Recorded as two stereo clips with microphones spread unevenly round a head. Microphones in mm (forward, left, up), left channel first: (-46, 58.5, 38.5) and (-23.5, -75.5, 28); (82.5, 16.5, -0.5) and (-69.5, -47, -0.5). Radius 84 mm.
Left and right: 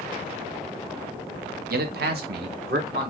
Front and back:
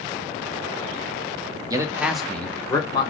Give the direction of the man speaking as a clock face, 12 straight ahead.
3 o'clock.